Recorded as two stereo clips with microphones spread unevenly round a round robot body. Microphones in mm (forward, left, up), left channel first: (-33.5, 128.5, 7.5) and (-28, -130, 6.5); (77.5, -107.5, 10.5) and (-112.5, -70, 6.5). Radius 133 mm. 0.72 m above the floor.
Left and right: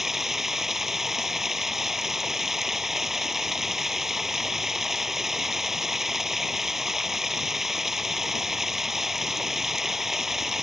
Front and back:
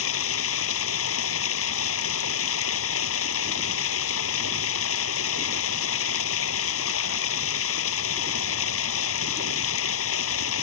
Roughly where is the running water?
Ahead.